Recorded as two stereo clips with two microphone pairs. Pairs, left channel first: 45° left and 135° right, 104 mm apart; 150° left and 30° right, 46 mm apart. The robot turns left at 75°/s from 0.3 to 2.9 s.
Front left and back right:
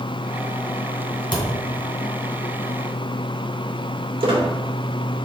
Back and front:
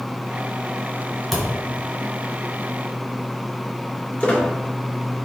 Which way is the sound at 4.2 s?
150° right.